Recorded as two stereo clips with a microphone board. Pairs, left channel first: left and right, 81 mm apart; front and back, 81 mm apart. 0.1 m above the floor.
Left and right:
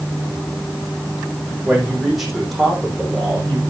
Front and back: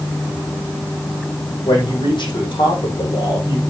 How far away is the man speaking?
About 6 m.